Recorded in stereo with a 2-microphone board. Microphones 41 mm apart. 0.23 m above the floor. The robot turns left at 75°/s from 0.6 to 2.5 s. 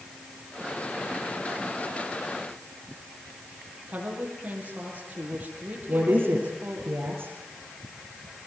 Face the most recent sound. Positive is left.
turn(degrees=-60)  # may be behind; listen again after turning